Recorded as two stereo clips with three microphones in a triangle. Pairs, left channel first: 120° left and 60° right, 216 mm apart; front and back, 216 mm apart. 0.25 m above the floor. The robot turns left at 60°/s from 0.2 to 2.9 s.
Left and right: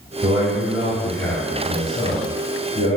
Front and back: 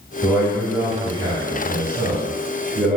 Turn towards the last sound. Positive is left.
turn(degrees=95)